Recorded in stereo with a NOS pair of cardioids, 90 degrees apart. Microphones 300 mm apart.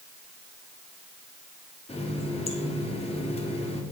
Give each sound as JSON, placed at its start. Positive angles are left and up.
{"t": 1.9, "sound": "a running tap", "azimuth_deg": 20, "distance_m": 2.0}